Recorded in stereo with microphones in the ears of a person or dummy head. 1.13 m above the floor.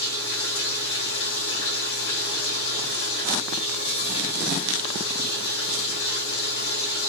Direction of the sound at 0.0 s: 70° left (ahead or behind).